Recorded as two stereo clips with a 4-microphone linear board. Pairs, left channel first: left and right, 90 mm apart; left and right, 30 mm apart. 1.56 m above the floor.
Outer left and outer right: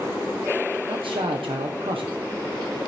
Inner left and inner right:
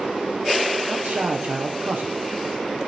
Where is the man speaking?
75° right (ahead or behind), 1.2 m.